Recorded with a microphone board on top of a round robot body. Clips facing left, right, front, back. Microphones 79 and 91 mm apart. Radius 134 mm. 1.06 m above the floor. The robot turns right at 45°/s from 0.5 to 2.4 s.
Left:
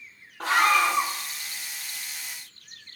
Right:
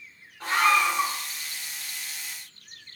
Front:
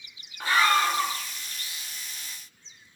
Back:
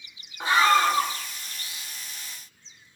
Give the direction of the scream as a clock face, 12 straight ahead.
8 o'clock.